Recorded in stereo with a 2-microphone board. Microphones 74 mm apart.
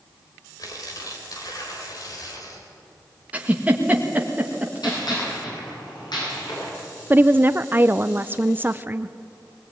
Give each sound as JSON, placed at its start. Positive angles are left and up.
{"t": 0.6, "sound": "tearing paper", "side_deg": 55, "distance_m": 3.5}
{"t": 3.3, "sound": "a giggle", "side_deg": -20, "distance_m": 1.9}
{"t": 4.8, "sound": "a gunshot", "side_deg": 75, "distance_m": 9.5}
{"t": 7.1, "sound": "a woman speaking", "side_deg": -30, "distance_m": 0.5}